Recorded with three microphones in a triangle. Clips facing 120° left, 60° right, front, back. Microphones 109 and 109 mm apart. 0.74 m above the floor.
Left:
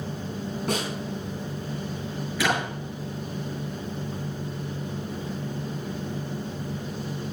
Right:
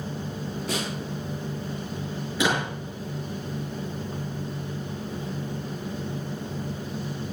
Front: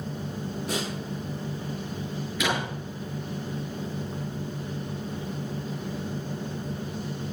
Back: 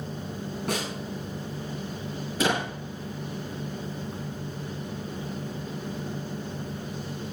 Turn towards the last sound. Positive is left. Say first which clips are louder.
# right 1 dB, back 3 dB
turn(degrees=-130)